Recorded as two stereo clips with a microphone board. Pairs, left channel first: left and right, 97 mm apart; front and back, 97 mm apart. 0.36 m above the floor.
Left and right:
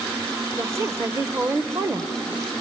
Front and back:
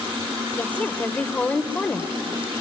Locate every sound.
0.6 s a woman speaking: 60° right, 1.1 m